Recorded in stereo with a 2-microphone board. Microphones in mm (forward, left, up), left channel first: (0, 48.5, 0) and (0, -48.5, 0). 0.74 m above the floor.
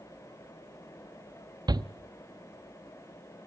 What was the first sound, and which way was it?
A shout, 45° right (ahead or behind).